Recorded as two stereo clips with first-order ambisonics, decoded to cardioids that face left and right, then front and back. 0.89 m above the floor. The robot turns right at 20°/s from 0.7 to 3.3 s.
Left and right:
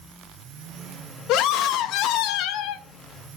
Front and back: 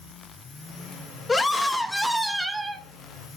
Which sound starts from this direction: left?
A scream, at 1.3 s.